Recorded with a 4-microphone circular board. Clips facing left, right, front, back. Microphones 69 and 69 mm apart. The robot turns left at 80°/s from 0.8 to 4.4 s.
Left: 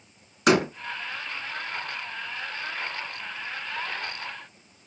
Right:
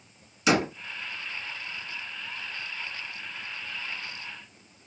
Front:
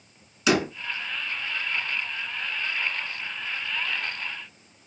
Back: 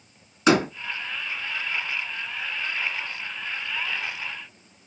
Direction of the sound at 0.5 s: 125° left.